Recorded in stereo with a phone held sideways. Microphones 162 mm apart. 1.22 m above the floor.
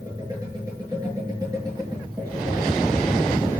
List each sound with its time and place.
0.0 s a machine running: 25° right (ahead or behind), 7.5 m